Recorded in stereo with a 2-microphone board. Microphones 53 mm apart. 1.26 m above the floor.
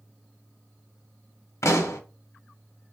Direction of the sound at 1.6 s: 60° left (ahead or behind).